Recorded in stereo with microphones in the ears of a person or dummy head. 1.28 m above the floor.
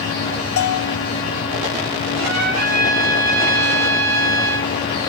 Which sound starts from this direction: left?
A bell, at 0.6 s.